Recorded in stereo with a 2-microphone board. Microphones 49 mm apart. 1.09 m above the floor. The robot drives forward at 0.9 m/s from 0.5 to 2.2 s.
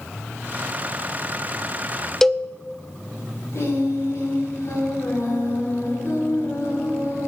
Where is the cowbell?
5° left (ahead or behind), 0.6 m.